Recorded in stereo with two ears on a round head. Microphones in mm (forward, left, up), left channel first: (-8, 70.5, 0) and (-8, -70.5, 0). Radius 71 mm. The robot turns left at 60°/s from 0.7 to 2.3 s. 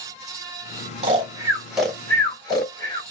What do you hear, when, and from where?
1.0 s snoring: 40° right (ahead or behind), 1.4 m; by 3.0 s 25° left (ahead or behind), 1.4 m